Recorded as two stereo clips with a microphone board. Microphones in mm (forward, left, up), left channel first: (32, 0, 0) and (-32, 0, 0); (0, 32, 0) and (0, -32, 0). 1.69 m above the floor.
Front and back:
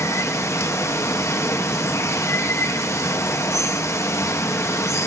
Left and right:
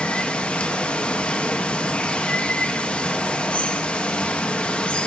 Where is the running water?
20° left, 0.8 m.